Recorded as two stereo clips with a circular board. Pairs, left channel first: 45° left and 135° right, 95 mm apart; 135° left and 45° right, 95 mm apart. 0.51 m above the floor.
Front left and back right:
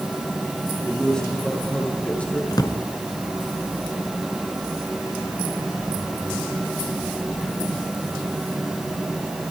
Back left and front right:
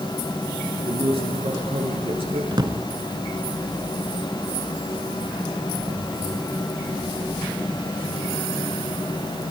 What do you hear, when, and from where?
0.8 s a man speaking: 40° right, 7.5 m; by 2.4 s 30° right, 7.5 m
2.5 s a drawer: straight ahead, 1.8 m